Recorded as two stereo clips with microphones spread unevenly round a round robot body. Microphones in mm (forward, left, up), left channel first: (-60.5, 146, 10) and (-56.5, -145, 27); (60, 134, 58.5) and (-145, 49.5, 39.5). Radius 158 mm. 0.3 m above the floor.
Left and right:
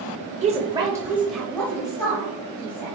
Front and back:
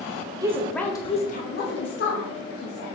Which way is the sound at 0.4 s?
125° right.